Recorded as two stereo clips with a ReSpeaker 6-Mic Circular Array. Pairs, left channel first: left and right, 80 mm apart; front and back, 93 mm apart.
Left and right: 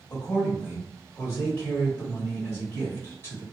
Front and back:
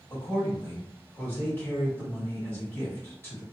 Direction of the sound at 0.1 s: 50° left.